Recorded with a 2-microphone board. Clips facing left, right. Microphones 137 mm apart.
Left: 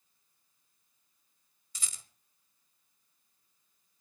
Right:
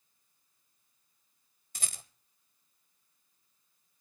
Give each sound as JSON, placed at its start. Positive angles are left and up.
{"t": 1.8, "sound": "a rattle", "side_deg": -55, "distance_m": 1.1}